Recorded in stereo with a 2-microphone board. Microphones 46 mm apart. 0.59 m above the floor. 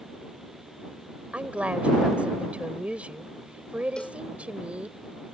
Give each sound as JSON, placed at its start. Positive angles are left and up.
{"t": 1.3, "sound": "a woman speaking", "side_deg": -25}
{"t": 4.0, "sound": "a cowbell", "side_deg": 15}